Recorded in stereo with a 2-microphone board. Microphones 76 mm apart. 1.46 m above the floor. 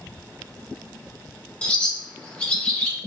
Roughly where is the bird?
Centre.